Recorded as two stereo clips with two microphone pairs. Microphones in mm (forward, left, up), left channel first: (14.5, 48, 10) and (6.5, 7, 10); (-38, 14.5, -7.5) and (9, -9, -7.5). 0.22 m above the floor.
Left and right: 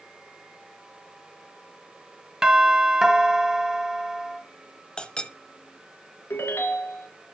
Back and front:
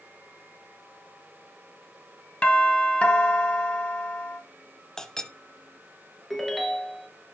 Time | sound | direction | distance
2.4 | a doorbell | 165° right | 1.7 m
5.0 | a clink | 95° left | 0.9 m
6.3 | a ringtone | 70° left | 1.8 m